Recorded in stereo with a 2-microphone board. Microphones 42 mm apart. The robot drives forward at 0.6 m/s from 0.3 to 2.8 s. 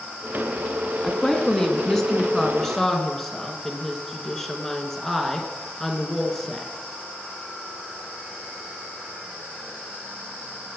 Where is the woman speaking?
15° left (ahead or behind), 1.3 m; by 6.7 s 10° left (ahead or behind), 1.8 m.